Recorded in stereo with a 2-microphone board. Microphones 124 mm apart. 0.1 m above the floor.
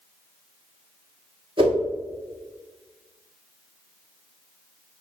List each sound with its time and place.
1.6 s a whoosh: 45° right (ahead or behind), 1.3 m